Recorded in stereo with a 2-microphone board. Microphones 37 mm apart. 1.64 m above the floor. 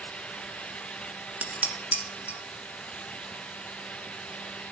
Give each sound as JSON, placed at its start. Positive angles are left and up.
{"t": 1.4, "sound": "dishes clattering", "side_deg": -45, "distance_m": 1.3}